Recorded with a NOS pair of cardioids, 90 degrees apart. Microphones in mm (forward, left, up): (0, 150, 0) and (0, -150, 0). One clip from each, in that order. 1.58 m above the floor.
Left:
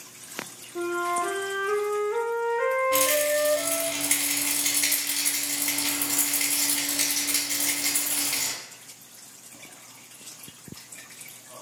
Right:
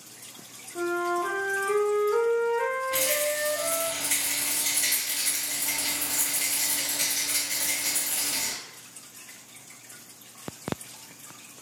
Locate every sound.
0.8 s a flute: 5° left, 0.6 m
2.9 s a rattle: 30° left, 1.2 m